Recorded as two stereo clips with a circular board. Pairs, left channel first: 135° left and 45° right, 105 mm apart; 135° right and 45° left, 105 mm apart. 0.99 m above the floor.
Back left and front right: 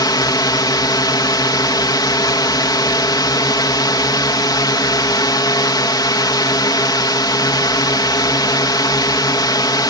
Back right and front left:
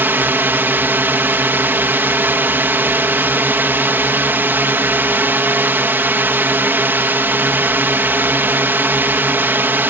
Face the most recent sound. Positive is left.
turn(degrees=110)